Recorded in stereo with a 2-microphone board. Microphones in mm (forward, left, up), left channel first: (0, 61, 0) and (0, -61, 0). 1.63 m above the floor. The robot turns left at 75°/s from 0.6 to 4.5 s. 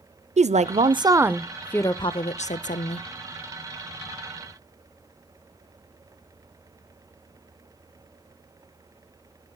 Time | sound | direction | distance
0.4 | a woman speaking | 110° right | 0.6 m